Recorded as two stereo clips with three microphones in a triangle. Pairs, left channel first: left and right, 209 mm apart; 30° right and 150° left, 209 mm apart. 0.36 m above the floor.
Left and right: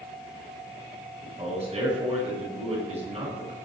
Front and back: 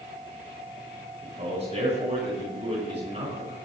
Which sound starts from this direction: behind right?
A man speaking, at 1.2 s.